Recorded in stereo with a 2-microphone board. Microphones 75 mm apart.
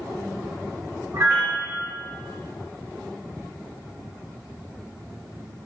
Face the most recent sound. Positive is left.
turn(degrees=-40)  # may be behind; listen again after turning